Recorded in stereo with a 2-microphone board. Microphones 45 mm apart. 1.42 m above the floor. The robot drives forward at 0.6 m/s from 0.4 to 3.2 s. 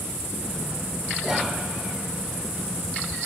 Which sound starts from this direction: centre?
Whispering, at 1.2 s.